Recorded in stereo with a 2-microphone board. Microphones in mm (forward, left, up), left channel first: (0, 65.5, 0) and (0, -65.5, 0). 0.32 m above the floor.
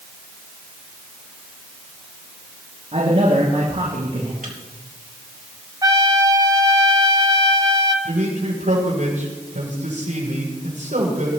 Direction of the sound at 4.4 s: 80° right.